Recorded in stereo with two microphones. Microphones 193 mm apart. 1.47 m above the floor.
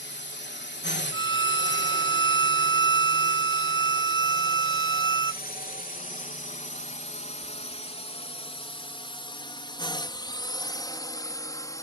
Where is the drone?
65° left (ahead or behind); by 11.8 s 15° left (ahead or behind).